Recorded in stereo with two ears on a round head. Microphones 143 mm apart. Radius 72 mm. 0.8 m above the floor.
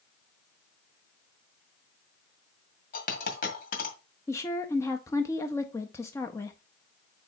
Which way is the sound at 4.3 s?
20° left (ahead or behind).